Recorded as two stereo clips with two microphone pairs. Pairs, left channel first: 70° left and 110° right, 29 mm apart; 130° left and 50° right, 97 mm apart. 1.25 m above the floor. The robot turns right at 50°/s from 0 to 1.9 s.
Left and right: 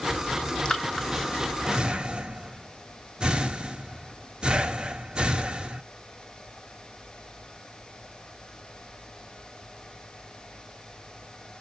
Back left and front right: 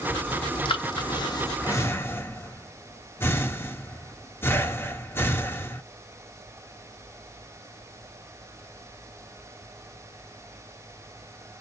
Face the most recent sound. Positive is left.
turn(degrees=-170)